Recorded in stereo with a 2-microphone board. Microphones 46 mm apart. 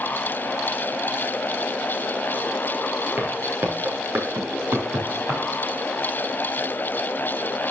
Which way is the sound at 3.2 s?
50° right (ahead or behind).